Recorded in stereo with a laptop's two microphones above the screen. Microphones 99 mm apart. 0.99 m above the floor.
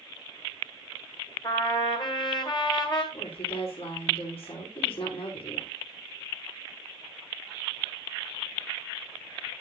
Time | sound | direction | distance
1.4 | a trumpet | 50° left (ahead or behind) | 1.9 m
3.1 | a woman speaking | 75° left (ahead or behind) | 3.5 m